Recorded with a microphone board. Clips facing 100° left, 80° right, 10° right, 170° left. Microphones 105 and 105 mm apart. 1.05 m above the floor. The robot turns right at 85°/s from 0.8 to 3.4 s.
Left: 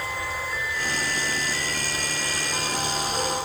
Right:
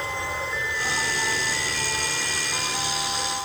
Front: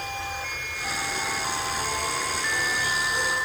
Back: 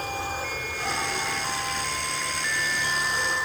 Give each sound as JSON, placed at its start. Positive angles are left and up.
{"t": 0.0, "sound": "an insect", "azimuth_deg": -140}